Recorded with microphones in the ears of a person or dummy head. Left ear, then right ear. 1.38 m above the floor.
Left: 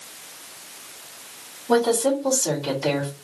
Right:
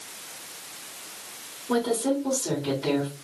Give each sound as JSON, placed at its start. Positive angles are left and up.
{"t": 1.7, "sound": "a woman speaking", "side_deg": 75, "distance_m": 2.5}